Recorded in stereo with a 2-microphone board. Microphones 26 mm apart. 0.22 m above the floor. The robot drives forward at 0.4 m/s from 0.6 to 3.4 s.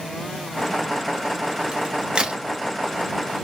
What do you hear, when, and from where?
1.7 s a crack: 40° right (ahead or behind), 1.2 m